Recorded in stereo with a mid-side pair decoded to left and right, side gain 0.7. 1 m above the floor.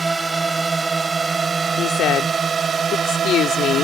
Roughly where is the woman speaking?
Ahead left.